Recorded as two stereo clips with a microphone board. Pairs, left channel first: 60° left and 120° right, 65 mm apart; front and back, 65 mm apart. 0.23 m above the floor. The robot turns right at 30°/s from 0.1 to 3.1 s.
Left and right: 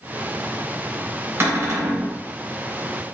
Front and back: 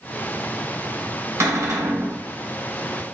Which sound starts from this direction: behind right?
A cupboard door, at 1.4 s.